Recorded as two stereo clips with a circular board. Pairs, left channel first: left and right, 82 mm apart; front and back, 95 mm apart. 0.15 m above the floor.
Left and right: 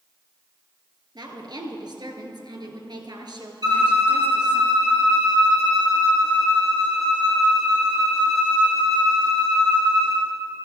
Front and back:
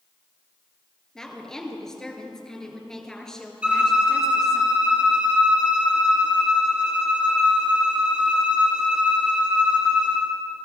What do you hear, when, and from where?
1.1 s a woman speaking: 85° right, 2 m
3.6 s a violin: 105° right, 3 m